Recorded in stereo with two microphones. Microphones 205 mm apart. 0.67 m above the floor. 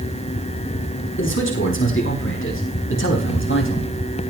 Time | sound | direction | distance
1.2 | a man speaking | 85° left | 6 m